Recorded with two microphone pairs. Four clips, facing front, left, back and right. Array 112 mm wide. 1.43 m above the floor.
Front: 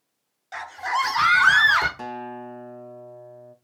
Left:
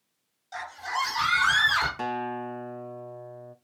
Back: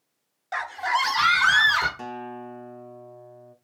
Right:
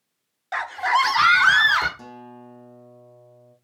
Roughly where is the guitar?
Left.